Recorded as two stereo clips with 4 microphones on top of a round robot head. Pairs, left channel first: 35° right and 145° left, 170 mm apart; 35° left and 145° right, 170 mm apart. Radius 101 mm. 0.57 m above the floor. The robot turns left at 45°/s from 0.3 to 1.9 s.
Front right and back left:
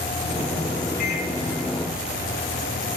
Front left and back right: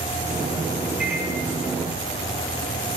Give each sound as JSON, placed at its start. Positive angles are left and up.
{"t": 1.0, "sound": "a microwave", "azimuth_deg": -55, "distance_m": 2.5}